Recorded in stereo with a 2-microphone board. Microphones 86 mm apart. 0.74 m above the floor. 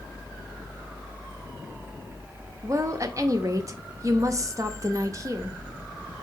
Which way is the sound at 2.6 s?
40° right (ahead or behind).